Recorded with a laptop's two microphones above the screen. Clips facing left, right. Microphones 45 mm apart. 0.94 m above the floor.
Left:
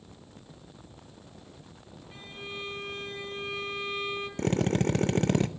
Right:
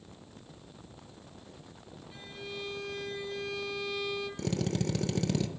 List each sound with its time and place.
2.1 s a violin: 35° left (ahead or behind), 2.5 m
4.4 s a drill: 40° left (ahead or behind), 0.6 m